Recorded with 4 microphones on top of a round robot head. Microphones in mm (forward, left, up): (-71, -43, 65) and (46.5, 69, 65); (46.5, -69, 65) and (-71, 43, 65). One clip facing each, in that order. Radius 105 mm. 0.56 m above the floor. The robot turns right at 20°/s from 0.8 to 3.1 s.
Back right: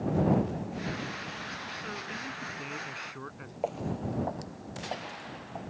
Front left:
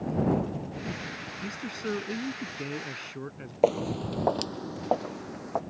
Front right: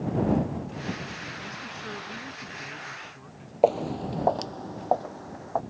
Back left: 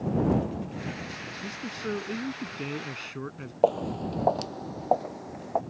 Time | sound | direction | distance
1.4 | a man speaking | 75° left | ?
3.6 | footsteps | 40° left | ?